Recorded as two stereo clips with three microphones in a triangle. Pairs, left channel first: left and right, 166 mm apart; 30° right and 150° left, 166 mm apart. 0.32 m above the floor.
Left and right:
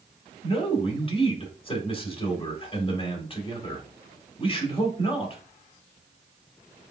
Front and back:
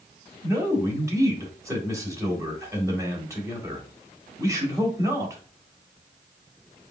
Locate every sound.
0.4 s a man speaking: 95° left, 1.7 m